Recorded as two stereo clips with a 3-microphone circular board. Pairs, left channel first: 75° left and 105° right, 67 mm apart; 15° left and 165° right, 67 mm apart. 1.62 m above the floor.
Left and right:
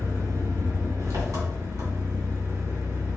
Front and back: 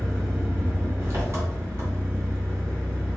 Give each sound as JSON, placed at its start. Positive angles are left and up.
{"t": 0.0, "sound": "an engine running", "azimuth_deg": -120, "distance_m": 2.5}